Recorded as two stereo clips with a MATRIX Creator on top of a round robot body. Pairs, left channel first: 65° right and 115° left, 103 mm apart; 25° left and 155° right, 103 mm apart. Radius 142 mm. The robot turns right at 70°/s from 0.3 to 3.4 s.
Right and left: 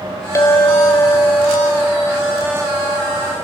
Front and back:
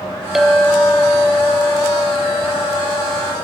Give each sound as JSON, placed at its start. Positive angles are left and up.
{"t": 0.3, "sound": "a clink", "azimuth_deg": -75, "distance_m": 0.8}